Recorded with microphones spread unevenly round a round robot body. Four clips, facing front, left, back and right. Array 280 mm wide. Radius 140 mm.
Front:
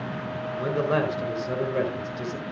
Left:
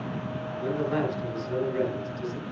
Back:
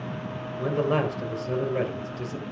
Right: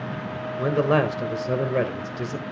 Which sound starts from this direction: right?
A man speaking, at 0.6 s.